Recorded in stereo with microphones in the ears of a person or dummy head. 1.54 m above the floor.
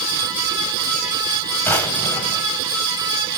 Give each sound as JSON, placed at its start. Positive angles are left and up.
{"t": 1.6, "sound": "a drawer", "side_deg": 15, "distance_m": 3.5}